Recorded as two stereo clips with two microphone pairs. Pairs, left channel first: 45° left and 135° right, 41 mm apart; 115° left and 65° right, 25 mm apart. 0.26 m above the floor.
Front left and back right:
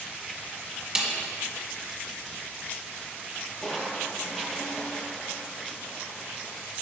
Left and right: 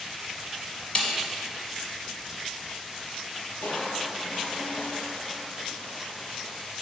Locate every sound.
0.9 s a snare drum: 155° left, 1.3 m
3.6 s crushing: 125° left, 1.3 m